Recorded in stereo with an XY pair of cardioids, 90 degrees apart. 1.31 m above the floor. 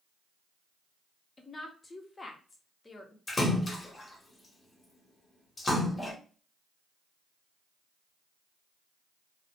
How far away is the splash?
About 1.1 m.